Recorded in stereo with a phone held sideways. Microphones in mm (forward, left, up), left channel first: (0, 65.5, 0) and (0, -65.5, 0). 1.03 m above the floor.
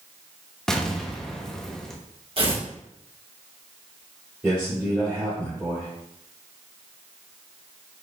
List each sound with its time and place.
0.7 s an explosion: 5° left (ahead or behind), 0.6 m
2.4 s tearing paper: 40° right (ahead or behind), 1.4 m
4.4 s a man speaking: 15° right (ahead or behind), 2.5 m